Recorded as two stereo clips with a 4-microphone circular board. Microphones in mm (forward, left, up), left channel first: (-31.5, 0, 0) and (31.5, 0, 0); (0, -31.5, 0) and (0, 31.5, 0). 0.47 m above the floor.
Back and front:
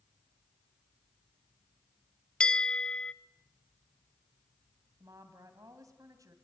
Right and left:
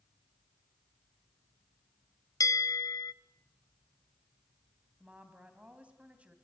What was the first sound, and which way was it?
A bell, 105° right.